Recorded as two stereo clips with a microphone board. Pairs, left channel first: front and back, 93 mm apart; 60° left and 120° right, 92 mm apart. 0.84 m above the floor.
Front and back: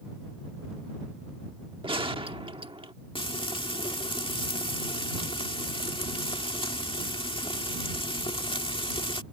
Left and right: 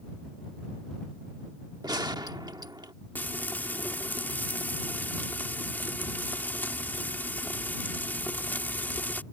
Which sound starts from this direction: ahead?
Frying, at 3.1 s.